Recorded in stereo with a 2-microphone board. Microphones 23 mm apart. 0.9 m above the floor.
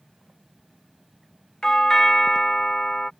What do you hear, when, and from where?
1.6 s a doorbell: 30° left (ahead or behind)